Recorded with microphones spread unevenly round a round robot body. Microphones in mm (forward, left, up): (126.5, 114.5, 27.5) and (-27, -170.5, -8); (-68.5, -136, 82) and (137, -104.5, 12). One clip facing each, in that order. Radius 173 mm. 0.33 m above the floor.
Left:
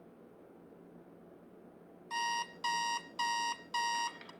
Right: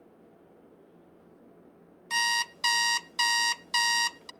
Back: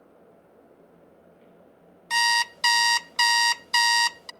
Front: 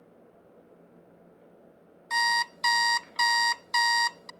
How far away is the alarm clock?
About 0.5 m.